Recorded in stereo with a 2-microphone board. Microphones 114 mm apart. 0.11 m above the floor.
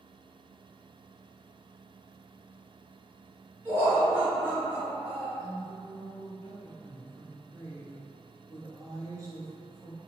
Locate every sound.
3.6 s laughter: 25° right (ahead or behind), 1.4 m; by 5.3 s 10° right (ahead or behind), 1.3 m
5.4 s a woman speaking: 30° right (ahead or behind), 1.3 m